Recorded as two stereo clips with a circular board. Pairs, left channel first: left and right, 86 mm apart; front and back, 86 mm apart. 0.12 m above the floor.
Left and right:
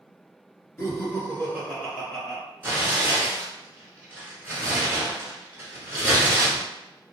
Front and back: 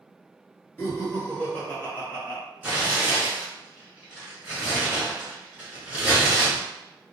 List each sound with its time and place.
0.8 s laughter: 50° left, 1.7 m; by 2.4 s 10° left, 1.4 m
2.6 s tearing paper: 125° right, 1.3 m